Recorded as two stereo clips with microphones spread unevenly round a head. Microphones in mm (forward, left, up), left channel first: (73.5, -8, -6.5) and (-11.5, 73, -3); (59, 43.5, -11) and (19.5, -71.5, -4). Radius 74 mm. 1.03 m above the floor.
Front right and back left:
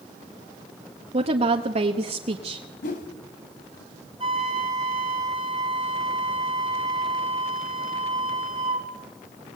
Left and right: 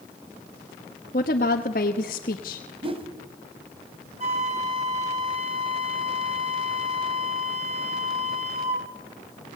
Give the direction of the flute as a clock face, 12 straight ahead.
5 o'clock.